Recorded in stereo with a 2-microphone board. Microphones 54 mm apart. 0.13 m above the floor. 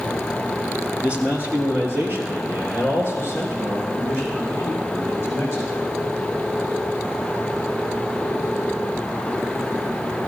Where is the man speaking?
25° right (ahead or behind), 1.3 m; by 5.9 s 60° right (ahead or behind), 7 m.